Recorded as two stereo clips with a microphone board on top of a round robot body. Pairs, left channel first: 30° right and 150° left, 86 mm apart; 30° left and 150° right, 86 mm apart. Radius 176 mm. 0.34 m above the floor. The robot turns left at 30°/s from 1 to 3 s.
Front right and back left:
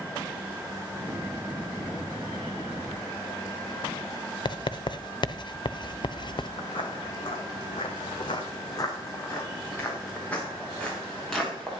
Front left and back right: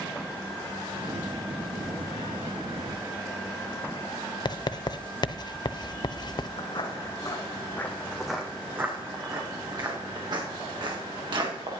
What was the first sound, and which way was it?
Writing, straight ahead.